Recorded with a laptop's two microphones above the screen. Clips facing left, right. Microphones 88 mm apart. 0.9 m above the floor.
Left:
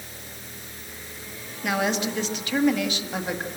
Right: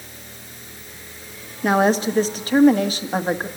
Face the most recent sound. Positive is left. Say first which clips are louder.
# right 8 dB
turn(degrees=-40)  # may be behind; listen again after turning